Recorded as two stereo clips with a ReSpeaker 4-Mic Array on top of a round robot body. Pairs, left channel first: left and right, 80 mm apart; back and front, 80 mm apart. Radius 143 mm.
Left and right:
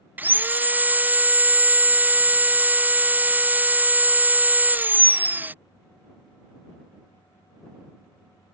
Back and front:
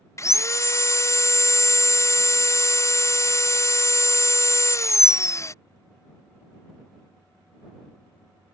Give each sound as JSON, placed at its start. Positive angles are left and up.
{"t": 0.2, "sound": "sawing", "azimuth_deg": -150}